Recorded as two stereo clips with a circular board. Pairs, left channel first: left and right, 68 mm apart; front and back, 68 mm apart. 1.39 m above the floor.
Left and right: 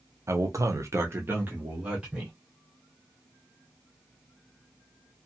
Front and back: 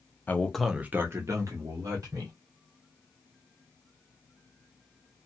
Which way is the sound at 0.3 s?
55° right.